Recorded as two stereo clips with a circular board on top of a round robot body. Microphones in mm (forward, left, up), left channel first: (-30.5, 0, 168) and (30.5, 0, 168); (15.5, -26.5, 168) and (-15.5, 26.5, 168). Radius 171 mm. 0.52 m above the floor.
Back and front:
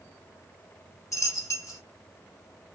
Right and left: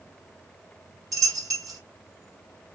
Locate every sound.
1.1 s a dropped coin: 145° left, 1.3 m